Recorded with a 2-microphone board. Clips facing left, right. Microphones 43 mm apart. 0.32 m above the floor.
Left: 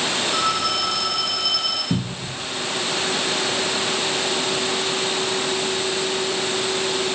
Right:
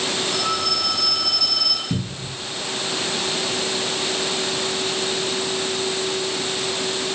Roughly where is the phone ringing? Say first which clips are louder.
Left 2 dB; left.